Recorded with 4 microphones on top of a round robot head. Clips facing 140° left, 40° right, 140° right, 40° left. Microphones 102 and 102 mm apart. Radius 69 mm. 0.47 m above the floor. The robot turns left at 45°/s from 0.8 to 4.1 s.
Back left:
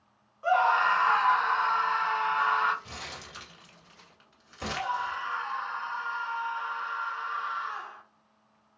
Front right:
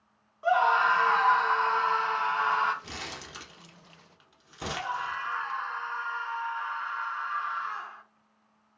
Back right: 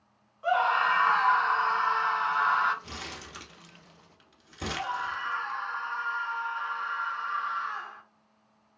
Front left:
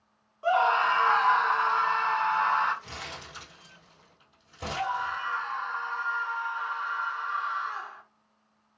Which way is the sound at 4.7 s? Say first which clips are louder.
Back left 2 dB, front left 3 dB; 110° left.